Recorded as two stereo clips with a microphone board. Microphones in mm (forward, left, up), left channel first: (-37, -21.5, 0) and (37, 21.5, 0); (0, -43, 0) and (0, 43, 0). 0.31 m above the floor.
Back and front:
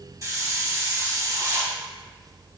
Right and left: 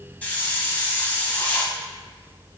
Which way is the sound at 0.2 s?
20° right.